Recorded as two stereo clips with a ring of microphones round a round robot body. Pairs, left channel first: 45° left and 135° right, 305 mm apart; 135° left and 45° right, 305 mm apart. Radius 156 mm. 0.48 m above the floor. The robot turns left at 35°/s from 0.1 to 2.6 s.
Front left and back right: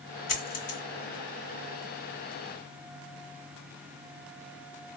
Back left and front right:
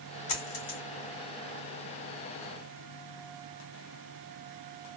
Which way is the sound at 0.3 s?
100° left.